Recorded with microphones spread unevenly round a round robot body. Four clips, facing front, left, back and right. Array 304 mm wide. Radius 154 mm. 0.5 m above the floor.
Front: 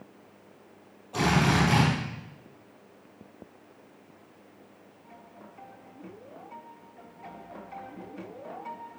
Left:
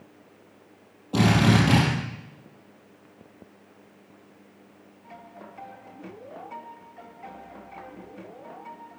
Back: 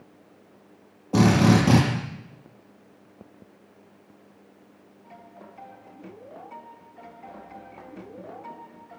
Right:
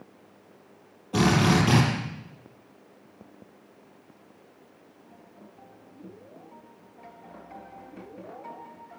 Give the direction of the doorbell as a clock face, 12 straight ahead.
I don't hear a doorbell.